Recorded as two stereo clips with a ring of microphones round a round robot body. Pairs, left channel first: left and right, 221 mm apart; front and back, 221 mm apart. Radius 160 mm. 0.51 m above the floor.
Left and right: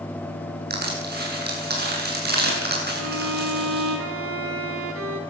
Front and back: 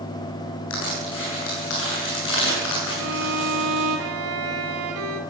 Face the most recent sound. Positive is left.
turn(degrees=-135)